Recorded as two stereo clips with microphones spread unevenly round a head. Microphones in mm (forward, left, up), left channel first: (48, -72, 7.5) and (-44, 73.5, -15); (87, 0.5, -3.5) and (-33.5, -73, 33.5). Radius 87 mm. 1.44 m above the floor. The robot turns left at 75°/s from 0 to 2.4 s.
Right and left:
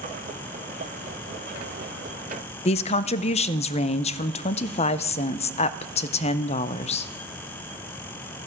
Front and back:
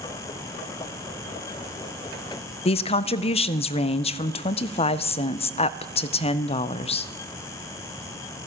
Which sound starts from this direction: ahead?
A woman speaking, at 2.6 s.